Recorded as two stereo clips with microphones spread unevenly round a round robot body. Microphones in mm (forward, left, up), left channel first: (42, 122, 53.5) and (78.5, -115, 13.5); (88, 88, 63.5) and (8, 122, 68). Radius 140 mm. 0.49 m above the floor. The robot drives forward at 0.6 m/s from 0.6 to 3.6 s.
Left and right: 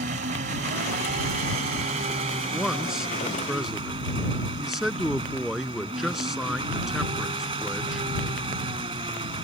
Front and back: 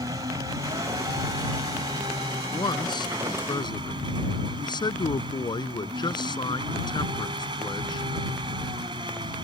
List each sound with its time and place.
0.0 s an engine running: 140° right; by 9.4 s 155° right
2.5 s a man speaking: 5° left